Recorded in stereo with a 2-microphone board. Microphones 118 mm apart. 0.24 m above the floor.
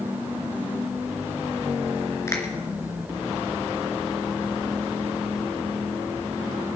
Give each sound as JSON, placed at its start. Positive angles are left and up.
{"t": 2.3, "sound": "a finger snap", "side_deg": 25, "distance_m": 3.0}